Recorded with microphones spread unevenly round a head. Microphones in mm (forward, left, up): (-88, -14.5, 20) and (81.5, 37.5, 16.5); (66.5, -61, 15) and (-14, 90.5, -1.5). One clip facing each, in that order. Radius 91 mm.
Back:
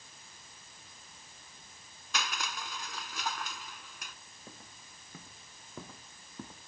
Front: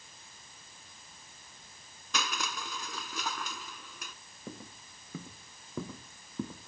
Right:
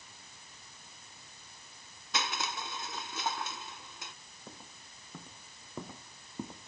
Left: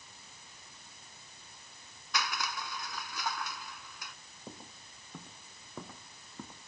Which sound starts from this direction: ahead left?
Footsteps, at 4.5 s.